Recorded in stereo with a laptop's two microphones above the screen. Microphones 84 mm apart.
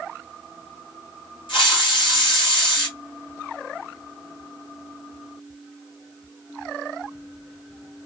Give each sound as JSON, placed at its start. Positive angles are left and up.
{"t": 1.5, "sound": "a hiss", "side_deg": 80, "distance_m": 1.3}